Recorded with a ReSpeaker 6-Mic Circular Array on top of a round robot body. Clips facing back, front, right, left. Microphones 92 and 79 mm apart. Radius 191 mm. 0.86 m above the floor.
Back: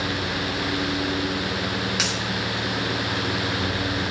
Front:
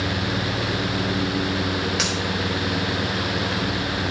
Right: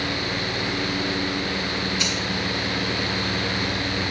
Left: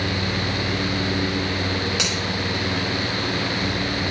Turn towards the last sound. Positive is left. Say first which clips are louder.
# front 2 dB, left 1 dB
turn(degrees=90)